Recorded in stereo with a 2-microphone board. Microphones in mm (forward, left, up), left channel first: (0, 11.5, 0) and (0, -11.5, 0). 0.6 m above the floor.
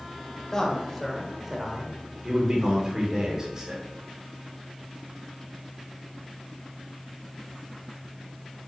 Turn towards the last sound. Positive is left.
turn(degrees=-25)  # may be behind; listen again after turning